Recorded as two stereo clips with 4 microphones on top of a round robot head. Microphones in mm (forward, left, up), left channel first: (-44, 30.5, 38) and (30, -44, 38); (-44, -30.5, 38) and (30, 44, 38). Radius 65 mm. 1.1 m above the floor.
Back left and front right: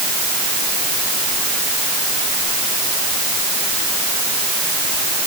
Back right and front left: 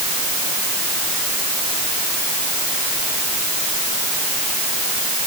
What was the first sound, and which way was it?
Only background noise.